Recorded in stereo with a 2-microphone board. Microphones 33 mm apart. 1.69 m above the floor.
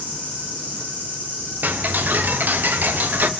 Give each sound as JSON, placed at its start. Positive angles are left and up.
{"t": 0.0, "sound": "an insect", "side_deg": -75, "distance_m": 3.5}
{"t": 1.6, "sound": "ticking", "side_deg": -70, "distance_m": 0.7}